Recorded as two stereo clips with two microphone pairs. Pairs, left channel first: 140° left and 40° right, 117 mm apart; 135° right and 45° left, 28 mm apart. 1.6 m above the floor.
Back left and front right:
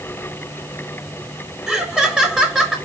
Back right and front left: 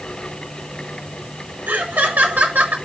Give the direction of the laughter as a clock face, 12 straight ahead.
11 o'clock.